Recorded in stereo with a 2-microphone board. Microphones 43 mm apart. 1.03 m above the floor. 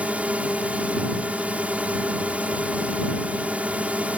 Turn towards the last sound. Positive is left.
turn(degrees=-30)  # may be behind; listen again after turning